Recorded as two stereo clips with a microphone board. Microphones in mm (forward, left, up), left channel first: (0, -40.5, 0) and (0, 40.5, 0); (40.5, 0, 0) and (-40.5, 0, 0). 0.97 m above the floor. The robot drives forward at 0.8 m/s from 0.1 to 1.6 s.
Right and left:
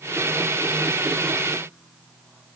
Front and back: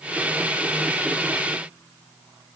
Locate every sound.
Only background noise.